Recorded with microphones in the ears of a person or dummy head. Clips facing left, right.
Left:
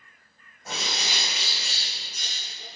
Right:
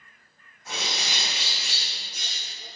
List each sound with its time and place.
0.7 s a bird: 40° left (ahead or behind), 4 m